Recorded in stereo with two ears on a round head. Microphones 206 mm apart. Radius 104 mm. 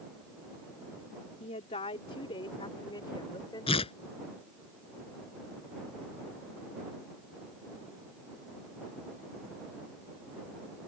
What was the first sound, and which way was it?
A woman speaking, 30° left (ahead or behind).